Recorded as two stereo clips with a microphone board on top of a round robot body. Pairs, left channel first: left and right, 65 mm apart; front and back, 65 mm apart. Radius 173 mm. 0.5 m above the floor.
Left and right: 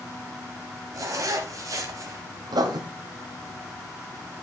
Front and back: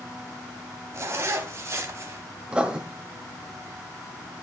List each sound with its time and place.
0.9 s a zipper: 130° right, 1.2 m
2.5 s writing: 105° right, 1.3 m